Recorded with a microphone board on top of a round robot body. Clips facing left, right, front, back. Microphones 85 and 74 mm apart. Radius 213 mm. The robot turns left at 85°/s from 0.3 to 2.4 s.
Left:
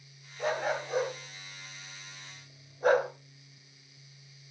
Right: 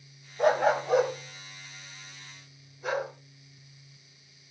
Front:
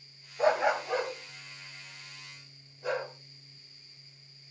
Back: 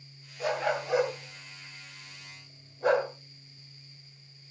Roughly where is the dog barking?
Ahead right.